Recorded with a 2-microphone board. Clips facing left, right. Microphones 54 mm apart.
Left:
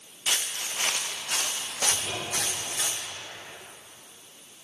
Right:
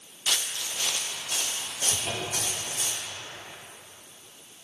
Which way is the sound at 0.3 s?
25° left (ahead or behind).